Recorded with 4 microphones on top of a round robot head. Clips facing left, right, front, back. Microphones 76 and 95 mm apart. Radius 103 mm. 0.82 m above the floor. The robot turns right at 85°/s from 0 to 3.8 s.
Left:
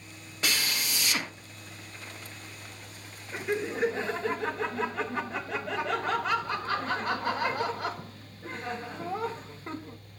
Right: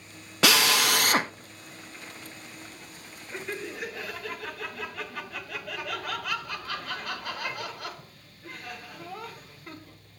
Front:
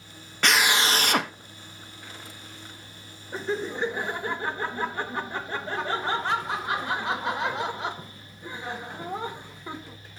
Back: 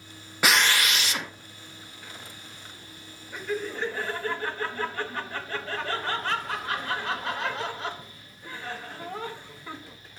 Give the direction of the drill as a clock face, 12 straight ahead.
3 o'clock.